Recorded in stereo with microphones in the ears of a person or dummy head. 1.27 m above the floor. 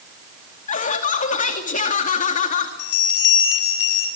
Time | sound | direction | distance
0.7 | laughter | 45° left (ahead or behind) | 2 m
2.8 | a bell | 75° left (ahead or behind) | 6.5 m